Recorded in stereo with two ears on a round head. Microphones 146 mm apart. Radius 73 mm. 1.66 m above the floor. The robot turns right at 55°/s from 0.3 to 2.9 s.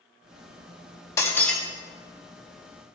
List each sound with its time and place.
1.2 s breaking glass: 20° left (ahead or behind), 1.3 m; by 1.6 s centre (ahead or behind), 1.3 m